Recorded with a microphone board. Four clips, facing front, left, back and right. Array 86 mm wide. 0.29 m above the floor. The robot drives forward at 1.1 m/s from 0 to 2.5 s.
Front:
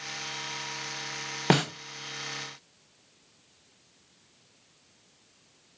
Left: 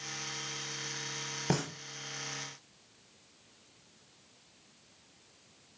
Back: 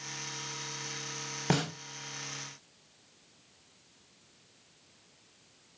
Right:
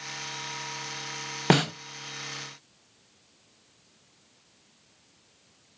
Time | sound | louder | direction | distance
1.5 | a snare drum | right 10 dB, front 6 dB | 55° right | 0.6 m